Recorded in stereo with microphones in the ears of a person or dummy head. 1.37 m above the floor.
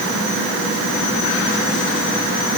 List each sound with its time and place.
Only background noise.